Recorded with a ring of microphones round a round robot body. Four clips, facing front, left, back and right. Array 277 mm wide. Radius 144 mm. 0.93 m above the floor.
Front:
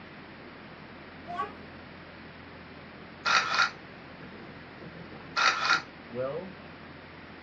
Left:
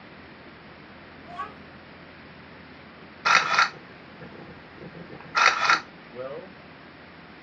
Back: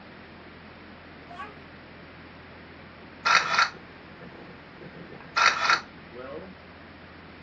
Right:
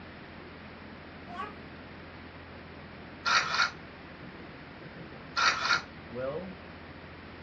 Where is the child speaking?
5° right, 2.5 m.